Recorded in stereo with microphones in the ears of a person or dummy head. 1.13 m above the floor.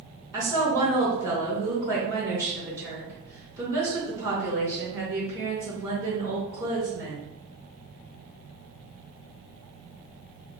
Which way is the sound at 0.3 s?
15° right (ahead or behind).